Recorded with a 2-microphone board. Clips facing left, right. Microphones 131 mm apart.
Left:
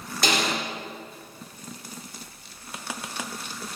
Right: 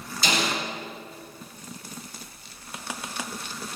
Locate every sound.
0.2 s a snare drum: 65° left (ahead or behind), 4 m